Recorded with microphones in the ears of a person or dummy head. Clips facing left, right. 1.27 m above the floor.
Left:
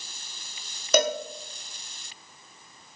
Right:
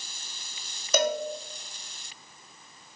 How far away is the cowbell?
About 0.5 m.